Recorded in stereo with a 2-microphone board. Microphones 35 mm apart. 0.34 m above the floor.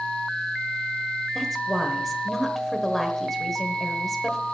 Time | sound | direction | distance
1.4 | a woman speaking | 5° left (ahead or behind) | 1.2 m